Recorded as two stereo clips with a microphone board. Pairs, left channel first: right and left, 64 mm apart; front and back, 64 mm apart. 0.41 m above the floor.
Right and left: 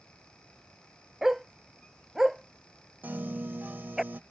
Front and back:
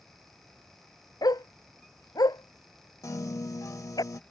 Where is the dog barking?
5° left.